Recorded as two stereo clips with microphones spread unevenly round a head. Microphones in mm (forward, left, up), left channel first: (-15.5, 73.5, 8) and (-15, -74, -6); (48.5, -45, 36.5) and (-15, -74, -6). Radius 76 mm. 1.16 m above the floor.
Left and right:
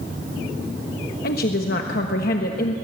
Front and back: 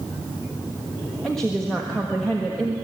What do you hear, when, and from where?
1.2 s a woman speaking: 115° left, 1.4 m